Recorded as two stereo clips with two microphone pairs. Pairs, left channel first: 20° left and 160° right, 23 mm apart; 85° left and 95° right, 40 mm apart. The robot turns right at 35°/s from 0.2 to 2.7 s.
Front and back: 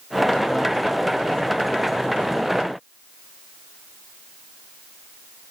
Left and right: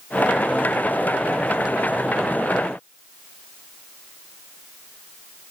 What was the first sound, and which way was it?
Only background noise.